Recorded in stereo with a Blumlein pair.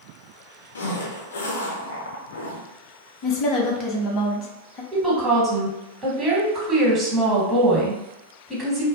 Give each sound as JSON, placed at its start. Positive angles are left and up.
{"t": 0.8, "sound": "a zipper", "azimuth_deg": 70, "distance_m": 0.6}
{"t": 3.2, "sound": "a woman speaking", "azimuth_deg": 30, "distance_m": 0.7}
{"t": 4.9, "sound": "a woman speaking", "azimuth_deg": -20, "distance_m": 1.2}